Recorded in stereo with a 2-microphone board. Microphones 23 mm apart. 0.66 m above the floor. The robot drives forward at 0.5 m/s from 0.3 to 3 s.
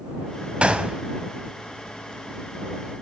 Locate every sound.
0.6 s a gunshot: 60° right (ahead or behind), 0.9 m; by 1.0 s 55° right (ahead or behind), 0.9 m